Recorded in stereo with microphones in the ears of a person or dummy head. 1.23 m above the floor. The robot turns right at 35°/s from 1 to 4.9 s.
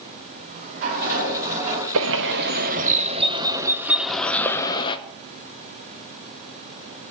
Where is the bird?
75° right, 0.6 m; by 5.0 s 30° left, 0.6 m.